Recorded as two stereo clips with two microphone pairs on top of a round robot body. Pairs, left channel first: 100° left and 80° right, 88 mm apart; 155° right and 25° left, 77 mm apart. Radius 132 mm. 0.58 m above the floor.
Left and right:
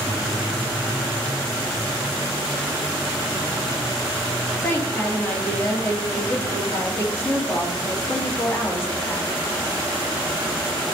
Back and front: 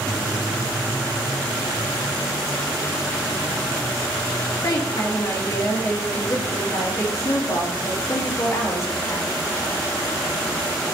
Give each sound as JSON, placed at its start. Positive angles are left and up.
{"t": 4.6, "sound": "a woman speaking", "azimuth_deg": 160, "distance_m": 1.8}